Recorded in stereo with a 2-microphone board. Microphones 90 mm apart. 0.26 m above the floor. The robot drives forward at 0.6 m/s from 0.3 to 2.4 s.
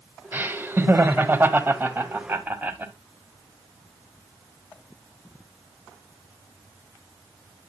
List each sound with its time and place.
0.3 s laughter: 20° right (ahead or behind), 1.1 m